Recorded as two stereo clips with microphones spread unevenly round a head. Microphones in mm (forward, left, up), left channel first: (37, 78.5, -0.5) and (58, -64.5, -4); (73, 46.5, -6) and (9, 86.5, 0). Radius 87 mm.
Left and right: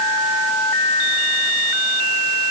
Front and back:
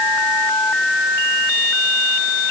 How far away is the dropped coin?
I don't hear a dropped coin.